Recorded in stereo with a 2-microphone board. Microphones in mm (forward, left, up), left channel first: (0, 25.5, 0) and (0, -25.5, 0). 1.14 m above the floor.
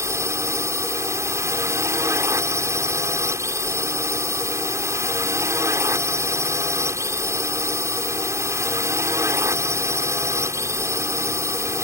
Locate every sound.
0.0 s a drone: 65° right (ahead or behind)